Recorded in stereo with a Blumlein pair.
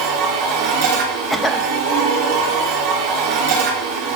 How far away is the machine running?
About 4 m.